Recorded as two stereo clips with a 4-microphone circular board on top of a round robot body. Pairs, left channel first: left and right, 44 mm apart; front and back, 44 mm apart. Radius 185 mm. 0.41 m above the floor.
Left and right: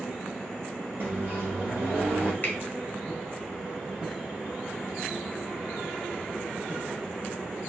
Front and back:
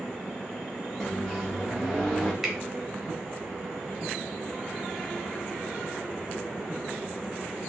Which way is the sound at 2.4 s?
105° left.